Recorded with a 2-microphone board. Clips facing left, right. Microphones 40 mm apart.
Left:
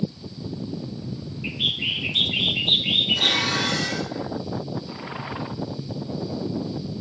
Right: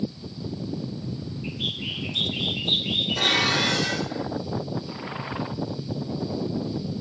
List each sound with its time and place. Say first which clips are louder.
1.4 s a bird: left 6 dB; 45° left (ahead or behind), 1.1 m
3.2 s dishes clattering: even; 25° right (ahead or behind), 7 m